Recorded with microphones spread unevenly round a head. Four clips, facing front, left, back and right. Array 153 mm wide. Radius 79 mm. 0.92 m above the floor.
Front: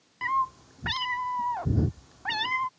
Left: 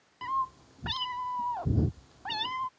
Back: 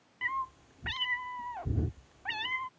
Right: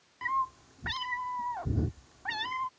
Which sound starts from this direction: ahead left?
A cat meowing, at 0.2 s.